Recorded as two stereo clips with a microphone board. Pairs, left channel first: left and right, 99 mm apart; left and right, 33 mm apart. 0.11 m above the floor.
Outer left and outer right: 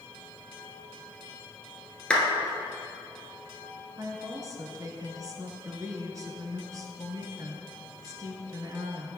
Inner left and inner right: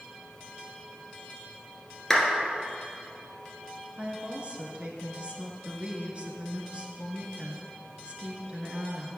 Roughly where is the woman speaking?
Right.